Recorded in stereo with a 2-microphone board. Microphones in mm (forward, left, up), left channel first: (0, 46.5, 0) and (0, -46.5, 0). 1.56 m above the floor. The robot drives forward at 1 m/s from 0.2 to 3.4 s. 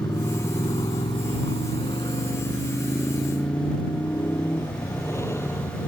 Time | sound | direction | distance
0.0 | a motorcycle | 40° left (ahead or behind) | ?